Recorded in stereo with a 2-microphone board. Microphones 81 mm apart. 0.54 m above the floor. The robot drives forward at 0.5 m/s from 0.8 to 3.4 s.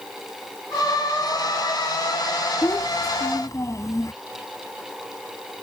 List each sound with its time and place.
2.6 s a child speaking: 40° left (ahead or behind); by 4.1 s 45° left (ahead or behind)